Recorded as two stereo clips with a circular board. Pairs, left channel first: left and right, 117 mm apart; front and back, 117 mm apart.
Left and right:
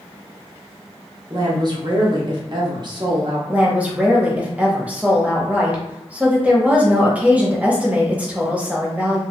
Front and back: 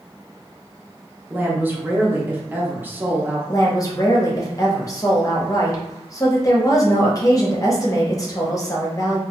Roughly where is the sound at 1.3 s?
Behind right.